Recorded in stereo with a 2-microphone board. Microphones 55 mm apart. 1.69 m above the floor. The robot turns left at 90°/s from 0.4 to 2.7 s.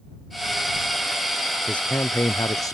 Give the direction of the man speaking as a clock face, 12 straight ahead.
6 o'clock.